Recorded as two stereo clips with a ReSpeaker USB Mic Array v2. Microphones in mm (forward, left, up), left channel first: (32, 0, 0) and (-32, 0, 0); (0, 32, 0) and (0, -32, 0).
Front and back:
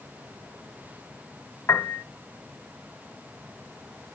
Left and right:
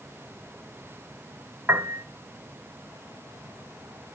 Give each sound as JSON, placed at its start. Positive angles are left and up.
{"t": 1.7, "sound": "a piano", "azimuth_deg": -45, "distance_m": 1.1}